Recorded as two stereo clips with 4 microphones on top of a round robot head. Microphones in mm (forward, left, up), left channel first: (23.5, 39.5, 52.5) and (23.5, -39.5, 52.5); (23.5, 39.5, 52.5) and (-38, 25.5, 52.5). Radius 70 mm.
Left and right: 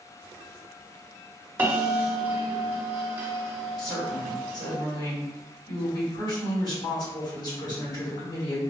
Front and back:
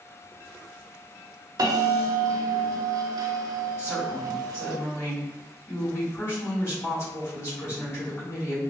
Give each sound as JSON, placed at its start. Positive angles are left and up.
{"t": 1.6, "sound": "a bell", "azimuth_deg": -155, "distance_m": 0.7}
{"t": 3.8, "sound": "a woman speaking", "azimuth_deg": 55, "distance_m": 1.8}